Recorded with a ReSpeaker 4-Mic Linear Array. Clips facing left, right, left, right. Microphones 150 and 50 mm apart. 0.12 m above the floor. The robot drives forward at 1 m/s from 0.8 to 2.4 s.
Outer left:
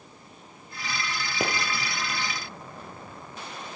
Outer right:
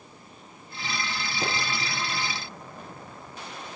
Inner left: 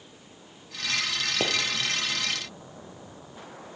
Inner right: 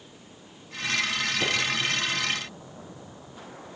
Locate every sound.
1.4 s a pop: 65° left (ahead or behind), 3 m